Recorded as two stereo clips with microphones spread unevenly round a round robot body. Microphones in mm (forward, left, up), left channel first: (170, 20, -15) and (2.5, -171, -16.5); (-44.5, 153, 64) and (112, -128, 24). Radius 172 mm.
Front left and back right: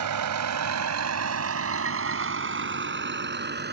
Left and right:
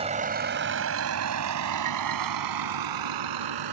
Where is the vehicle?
135° right; by 3.7 s 80° right.